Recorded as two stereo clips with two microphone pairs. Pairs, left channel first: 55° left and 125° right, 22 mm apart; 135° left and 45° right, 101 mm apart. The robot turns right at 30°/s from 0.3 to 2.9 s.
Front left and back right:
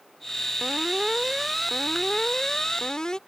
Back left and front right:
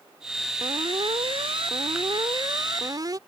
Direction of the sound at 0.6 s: 70° right.